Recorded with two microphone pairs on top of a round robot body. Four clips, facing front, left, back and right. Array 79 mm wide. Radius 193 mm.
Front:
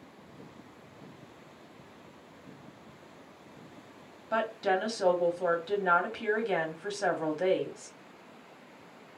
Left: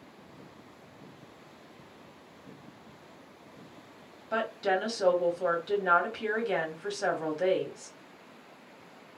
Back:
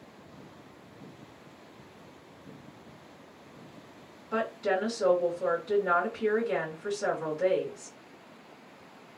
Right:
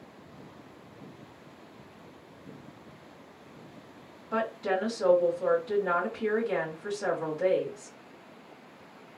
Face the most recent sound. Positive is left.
turn(degrees=20)